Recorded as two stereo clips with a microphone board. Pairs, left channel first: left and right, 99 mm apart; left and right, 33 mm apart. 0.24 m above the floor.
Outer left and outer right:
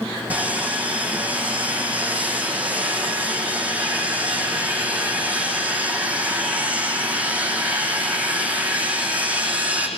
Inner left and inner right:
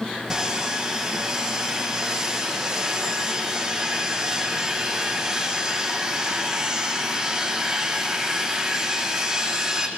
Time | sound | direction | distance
0.3 | sawing | 15° right (ahead or behind) | 5.5 m